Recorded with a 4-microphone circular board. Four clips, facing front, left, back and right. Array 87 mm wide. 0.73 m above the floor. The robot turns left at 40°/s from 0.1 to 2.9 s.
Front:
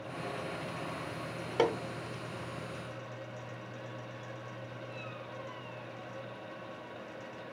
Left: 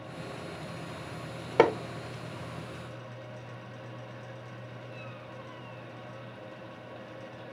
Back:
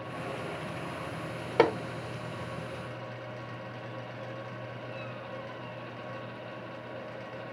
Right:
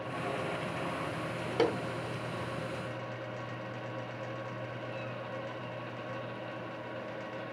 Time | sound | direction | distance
1.6 | hammering | 115° left | 0.8 m